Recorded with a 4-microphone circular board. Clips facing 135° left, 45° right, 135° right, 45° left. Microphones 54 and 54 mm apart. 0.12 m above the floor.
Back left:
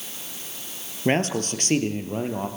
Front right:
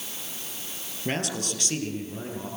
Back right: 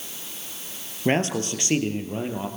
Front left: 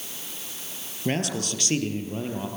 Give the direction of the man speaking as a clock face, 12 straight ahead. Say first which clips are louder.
Back left 7 dB, back right 5 dB; 6 o'clock.